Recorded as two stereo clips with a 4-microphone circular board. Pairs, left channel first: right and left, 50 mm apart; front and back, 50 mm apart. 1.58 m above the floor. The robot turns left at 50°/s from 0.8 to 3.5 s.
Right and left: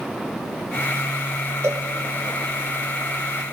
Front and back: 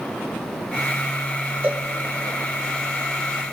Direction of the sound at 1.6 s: 125° left.